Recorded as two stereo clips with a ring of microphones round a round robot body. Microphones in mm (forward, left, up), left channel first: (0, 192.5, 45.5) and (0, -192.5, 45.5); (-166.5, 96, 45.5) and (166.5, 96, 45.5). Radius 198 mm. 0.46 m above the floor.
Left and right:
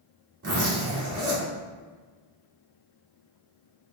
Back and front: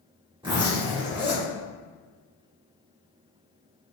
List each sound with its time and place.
0.4 s a zipper: 65° right, 1.6 m